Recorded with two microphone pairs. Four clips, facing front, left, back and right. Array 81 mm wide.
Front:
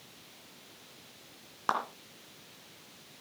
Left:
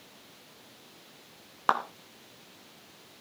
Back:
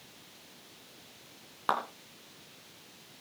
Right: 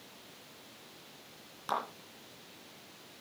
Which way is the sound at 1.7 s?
85° left.